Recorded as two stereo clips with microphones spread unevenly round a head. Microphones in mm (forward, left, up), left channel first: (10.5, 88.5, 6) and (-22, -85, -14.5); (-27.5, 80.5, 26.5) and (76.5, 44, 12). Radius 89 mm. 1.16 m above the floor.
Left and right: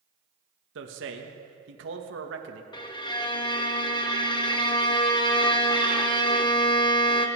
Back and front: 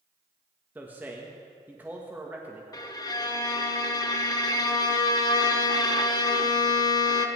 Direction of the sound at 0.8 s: 95° right.